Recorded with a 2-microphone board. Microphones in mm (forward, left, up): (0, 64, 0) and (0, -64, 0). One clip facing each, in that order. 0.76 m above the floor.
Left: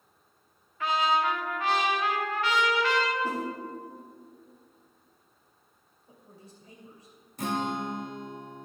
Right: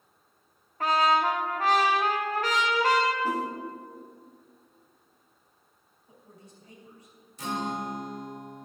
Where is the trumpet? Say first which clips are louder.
Right 3 dB; 40° right (ahead or behind), 0.9 m.